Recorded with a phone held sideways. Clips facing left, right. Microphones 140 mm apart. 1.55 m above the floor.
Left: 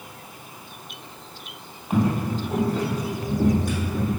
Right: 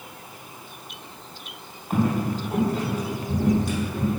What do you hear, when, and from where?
1.9 s footsteps: 15° left (ahead or behind), 2 m; by 4.1 s 60° left (ahead or behind), 3 m